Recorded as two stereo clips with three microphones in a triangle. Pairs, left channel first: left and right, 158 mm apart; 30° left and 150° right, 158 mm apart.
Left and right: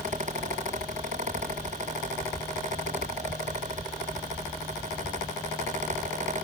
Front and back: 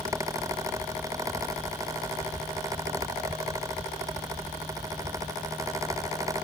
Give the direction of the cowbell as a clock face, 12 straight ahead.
No cowbell in this recording.